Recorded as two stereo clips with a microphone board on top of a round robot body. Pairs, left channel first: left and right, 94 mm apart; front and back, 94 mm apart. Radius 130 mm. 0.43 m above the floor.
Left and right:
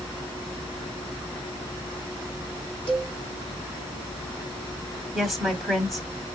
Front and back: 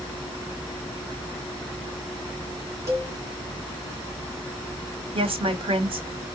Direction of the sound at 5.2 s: 175° left.